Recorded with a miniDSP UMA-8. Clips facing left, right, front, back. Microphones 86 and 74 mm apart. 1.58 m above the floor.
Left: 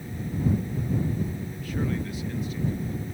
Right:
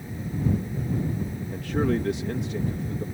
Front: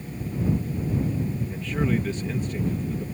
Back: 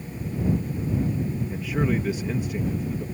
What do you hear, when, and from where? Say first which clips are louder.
1.5 s a man speaking: right 10 dB, even; 100° right